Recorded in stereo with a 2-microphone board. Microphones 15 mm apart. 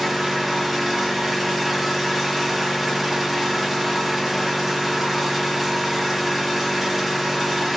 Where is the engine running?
5° right (ahead or behind), 1.6 m.